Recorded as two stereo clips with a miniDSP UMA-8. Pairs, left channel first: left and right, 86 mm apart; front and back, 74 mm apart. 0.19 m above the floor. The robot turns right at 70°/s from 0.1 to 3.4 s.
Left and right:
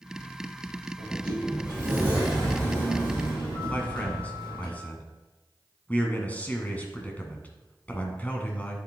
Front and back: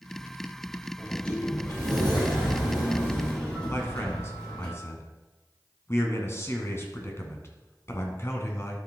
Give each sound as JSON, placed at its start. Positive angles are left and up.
{"t": 1.0, "sound": "a sliding door", "azimuth_deg": -95, "distance_m": 4.5}
{"t": 3.7, "sound": "a man speaking", "azimuth_deg": 30, "distance_m": 1.9}